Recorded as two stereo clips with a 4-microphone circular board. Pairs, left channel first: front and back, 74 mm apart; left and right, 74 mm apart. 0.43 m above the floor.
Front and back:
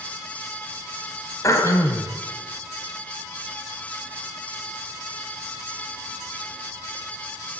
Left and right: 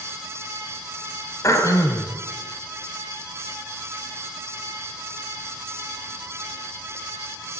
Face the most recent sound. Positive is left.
turn(degrees=45)